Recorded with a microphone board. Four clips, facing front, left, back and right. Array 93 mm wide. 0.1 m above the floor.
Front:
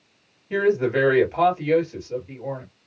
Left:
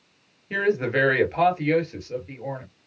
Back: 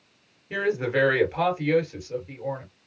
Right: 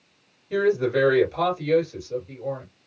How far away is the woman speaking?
About 1.9 m.